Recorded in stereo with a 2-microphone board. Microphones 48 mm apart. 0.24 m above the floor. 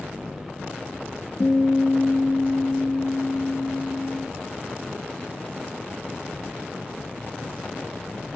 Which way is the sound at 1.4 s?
60° left (ahead or behind).